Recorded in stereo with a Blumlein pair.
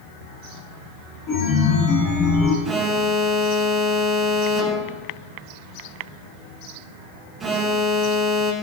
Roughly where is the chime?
Ahead left.